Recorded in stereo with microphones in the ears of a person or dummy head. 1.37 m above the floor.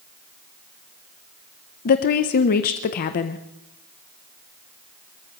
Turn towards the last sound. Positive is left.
turn(degrees=45)  # may be behind; listen again after turning